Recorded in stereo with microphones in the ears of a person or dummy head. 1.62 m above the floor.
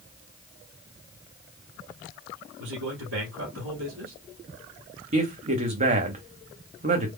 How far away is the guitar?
I don't hear a guitar.